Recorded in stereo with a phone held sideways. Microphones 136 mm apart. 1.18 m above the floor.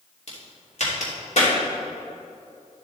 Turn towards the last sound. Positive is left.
turn(degrees=65)  # may be behind; listen again after turning